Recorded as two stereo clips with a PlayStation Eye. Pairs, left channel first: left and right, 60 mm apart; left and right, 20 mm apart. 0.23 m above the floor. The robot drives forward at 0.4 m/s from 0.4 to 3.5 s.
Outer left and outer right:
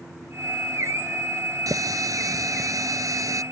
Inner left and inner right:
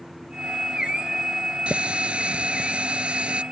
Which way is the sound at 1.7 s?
75° right (ahead or behind).